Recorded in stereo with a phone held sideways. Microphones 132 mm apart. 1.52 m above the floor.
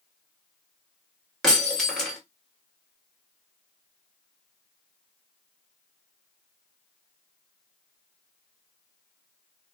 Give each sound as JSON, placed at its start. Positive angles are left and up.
{"t": 1.4, "sound": "breaking glass", "side_deg": 5, "distance_m": 1.2}